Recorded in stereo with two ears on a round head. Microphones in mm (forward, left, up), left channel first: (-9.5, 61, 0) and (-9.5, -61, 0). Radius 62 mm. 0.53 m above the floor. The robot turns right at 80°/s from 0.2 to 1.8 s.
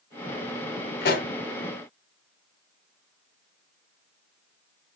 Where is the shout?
No shout in this recording.